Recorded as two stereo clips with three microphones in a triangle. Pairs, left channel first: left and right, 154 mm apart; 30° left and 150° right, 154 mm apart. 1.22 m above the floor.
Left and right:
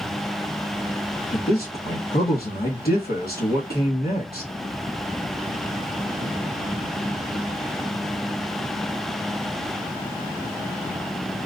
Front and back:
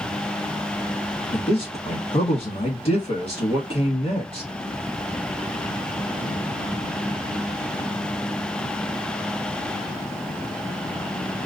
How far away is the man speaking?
About 2 m.